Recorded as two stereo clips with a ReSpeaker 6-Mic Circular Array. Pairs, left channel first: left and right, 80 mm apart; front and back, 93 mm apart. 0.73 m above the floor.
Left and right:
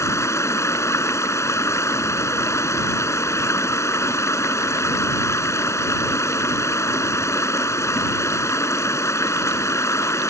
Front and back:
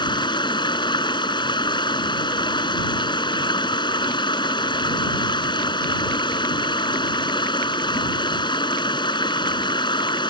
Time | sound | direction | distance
0.0 | running water | 35° left | ?